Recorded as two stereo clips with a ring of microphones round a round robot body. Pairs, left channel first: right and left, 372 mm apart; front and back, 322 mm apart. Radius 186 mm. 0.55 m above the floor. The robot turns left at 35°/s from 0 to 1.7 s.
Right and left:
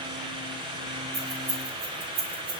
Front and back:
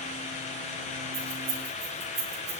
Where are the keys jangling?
150° left, 5 m; by 2.6 s 130° left, 5 m.